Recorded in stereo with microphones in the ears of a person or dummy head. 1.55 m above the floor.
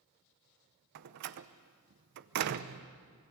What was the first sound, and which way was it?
A door slam, 55° right (ahead or behind).